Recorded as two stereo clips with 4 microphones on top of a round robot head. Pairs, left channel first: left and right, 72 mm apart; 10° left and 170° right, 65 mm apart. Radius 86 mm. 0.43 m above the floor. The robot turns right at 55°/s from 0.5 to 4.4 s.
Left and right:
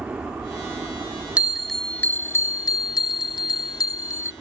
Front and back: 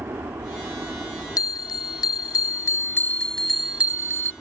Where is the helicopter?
150° right; by 4.4 s 65° left.